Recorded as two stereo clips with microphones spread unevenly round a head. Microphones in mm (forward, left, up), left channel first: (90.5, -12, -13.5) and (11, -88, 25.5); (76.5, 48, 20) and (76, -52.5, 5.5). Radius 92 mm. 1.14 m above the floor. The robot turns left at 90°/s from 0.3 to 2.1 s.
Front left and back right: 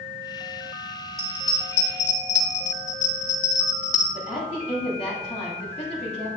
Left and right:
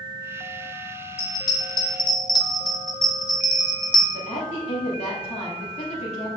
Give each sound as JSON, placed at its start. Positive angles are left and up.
{"t": 1.2, "sound": "a bell", "azimuth_deg": 150, "distance_m": 1.0}
{"t": 4.1, "sound": "a woman speaking", "azimuth_deg": 90, "distance_m": 3.0}